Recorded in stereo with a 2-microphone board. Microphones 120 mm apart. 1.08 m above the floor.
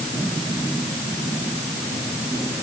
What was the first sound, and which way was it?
Only background noise.